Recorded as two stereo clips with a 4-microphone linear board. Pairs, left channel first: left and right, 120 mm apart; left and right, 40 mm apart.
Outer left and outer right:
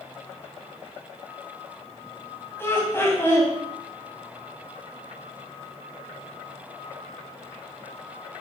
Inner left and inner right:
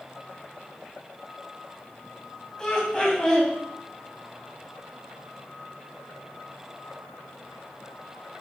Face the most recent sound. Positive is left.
turn(degrees=20)  # may be behind; listen again after turning